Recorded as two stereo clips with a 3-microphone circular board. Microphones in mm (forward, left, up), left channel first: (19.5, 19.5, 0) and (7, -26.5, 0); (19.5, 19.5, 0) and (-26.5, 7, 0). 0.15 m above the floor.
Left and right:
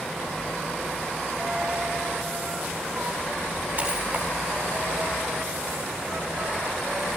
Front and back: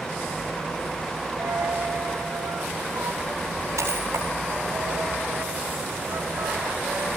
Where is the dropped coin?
165° right, 9 m.